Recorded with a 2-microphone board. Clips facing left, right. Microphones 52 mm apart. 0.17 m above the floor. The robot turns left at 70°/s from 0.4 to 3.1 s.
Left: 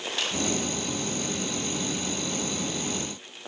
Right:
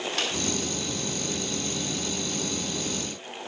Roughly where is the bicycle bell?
I don't hear a bicycle bell.